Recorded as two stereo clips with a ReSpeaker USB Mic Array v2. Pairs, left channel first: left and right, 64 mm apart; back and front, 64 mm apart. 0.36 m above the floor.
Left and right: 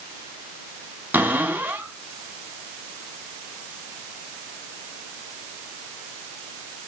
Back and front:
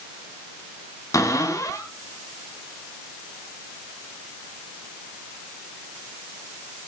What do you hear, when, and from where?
1.1 s a cupboard door: 155° right, 3.5 m